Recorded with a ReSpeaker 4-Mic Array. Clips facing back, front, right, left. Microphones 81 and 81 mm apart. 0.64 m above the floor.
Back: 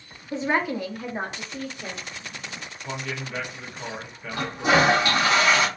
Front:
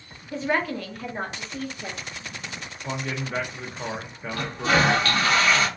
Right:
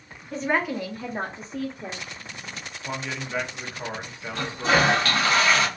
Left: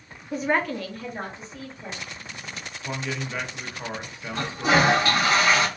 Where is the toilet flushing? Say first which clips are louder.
Back 2 dB, left 1 dB; 135° left, 0.8 m.